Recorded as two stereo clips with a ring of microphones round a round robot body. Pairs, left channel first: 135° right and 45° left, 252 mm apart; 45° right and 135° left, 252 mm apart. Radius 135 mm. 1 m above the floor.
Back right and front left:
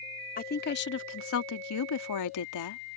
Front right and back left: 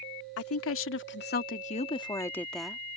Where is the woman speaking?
75° right; by 2.8 s 140° right.